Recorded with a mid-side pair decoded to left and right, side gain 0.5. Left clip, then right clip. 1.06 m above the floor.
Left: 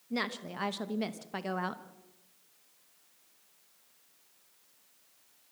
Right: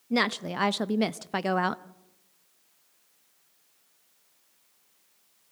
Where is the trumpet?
I don't hear a trumpet.